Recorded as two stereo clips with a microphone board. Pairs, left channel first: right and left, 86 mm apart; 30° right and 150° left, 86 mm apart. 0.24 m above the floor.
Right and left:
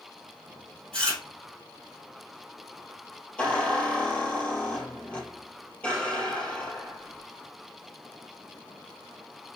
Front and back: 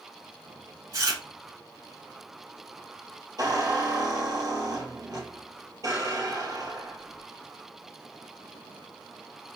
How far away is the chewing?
About 3.5 m.